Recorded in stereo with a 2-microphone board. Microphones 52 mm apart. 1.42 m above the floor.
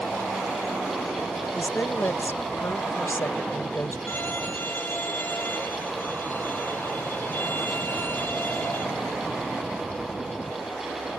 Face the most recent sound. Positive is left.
turn(degrees=40)  # may be behind; listen again after turning